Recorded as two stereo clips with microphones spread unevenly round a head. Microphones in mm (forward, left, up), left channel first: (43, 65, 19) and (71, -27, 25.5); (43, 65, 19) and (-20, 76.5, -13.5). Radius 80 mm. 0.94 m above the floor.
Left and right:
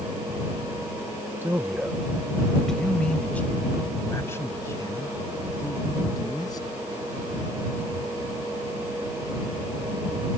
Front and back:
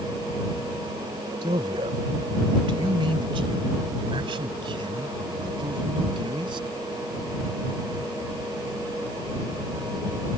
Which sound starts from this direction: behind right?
A man speaking, at 1.4 s.